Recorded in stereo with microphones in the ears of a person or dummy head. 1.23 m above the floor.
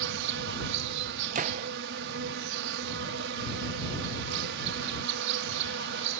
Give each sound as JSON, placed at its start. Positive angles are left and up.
{"t": 0.0, "sound": "an insect", "side_deg": -65}
{"t": 1.4, "sound": "a gunshot", "side_deg": -35}